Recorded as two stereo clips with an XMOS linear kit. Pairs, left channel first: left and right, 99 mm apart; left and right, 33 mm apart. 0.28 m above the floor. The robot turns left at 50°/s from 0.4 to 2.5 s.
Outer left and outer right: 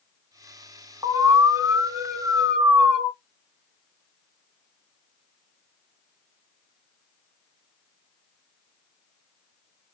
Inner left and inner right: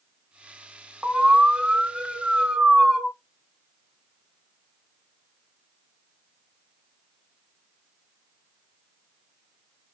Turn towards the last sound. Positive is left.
turn(degrees=-170)